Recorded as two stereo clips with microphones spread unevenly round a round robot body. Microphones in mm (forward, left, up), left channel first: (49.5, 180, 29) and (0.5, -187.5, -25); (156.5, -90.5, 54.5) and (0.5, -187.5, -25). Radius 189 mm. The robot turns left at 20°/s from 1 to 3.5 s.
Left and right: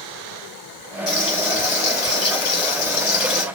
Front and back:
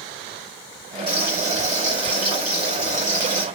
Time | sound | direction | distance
1.1 | frying | 150° left | 1.4 m